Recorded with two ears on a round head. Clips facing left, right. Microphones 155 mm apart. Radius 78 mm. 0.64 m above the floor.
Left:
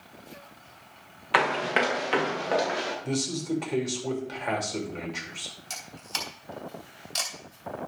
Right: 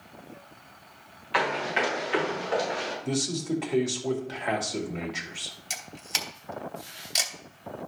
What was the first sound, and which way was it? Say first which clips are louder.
Running footsteps: left 2 dB; 65° left (ahead or behind).